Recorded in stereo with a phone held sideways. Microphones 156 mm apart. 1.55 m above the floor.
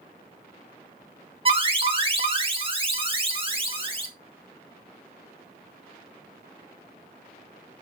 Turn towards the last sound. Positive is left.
turn(degrees=-30)  # may be behind; listen again after turning